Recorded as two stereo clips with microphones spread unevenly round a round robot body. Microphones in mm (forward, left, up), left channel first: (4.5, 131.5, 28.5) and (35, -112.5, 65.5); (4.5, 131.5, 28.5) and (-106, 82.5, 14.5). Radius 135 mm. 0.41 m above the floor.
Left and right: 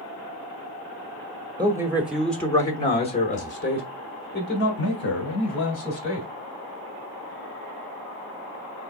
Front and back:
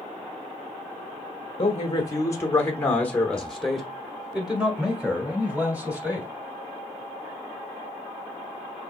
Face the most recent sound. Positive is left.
turn(degrees=130)